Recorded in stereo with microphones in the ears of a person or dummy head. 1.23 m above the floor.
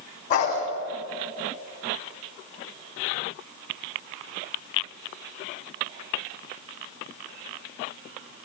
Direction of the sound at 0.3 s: 35° left (ahead or behind).